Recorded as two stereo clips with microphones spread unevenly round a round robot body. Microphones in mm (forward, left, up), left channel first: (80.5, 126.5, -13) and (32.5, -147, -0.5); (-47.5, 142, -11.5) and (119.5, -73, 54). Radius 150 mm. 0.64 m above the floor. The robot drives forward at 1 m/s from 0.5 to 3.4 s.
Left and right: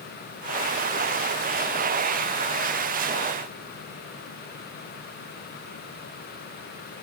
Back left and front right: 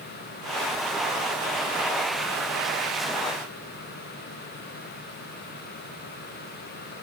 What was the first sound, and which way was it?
Only background noise.